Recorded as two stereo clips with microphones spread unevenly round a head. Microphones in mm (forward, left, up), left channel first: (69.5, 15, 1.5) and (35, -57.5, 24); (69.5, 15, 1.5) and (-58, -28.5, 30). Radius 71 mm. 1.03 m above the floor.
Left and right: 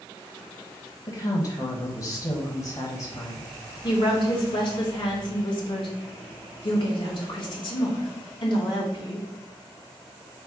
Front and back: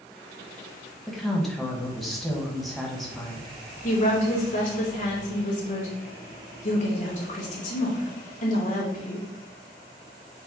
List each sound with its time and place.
1.1 s a woman speaking: 100° left, 0.9 m
3.8 s a woman speaking: 55° left, 1.6 m